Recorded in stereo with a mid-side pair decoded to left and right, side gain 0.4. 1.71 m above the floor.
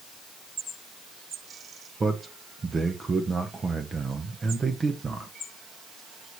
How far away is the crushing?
No crushing in this recording.